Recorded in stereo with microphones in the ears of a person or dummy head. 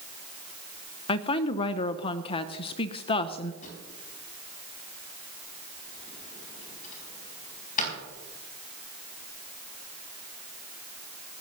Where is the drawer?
45° left (ahead or behind), 4.5 m.